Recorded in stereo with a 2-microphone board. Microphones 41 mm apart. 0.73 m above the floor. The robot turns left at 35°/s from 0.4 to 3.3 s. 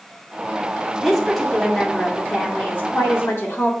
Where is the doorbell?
No doorbell in this recording.